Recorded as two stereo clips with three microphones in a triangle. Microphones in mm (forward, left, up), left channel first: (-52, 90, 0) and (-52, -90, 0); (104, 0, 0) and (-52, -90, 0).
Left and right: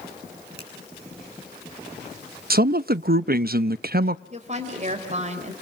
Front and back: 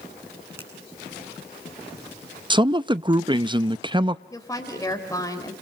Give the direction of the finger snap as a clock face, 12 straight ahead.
2 o'clock.